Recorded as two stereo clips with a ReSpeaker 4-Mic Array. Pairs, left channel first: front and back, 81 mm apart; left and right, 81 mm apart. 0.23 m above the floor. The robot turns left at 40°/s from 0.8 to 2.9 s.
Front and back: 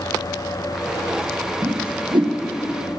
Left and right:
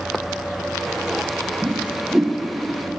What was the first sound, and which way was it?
A whoosh, 150° right.